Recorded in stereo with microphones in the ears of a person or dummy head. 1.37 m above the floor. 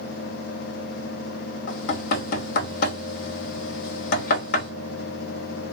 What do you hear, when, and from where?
1.7 s knocking: 50° left (ahead or behind), 1.2 m